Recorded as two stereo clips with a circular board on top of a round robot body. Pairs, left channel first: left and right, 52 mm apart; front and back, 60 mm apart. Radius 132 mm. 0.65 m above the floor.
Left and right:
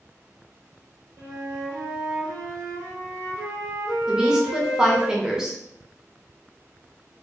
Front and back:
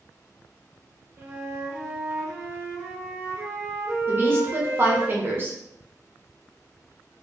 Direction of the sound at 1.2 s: 120° right.